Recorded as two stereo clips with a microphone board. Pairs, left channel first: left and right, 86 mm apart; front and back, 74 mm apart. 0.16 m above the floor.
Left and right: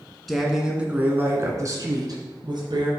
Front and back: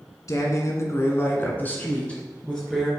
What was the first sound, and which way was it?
A woman speaking, straight ahead.